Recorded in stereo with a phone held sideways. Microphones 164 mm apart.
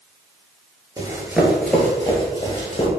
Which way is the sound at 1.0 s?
20° right (ahead or behind).